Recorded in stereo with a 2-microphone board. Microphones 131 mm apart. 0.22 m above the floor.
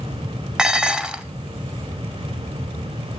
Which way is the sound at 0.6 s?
5° right (ahead or behind).